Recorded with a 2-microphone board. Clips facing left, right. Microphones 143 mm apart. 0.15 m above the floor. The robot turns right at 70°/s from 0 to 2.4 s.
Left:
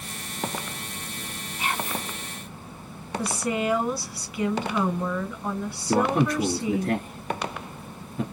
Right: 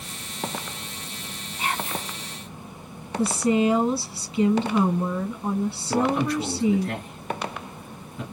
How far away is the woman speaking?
About 1.7 m.